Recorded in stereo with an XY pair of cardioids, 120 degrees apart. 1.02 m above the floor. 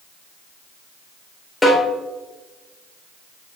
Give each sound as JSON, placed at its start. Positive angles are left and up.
{"t": 1.6, "sound": "a snare drum", "azimuth_deg": 15, "distance_m": 4.5}